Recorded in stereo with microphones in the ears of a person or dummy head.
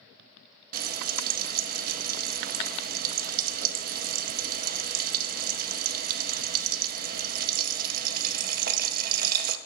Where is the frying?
55° right (ahead or behind), 0.7 m.